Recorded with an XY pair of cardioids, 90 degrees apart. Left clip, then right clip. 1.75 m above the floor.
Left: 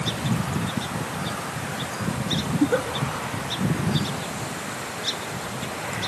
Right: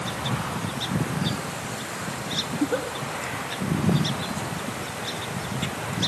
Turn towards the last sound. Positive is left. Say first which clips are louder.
# left 5 dB
turn(degrees=25)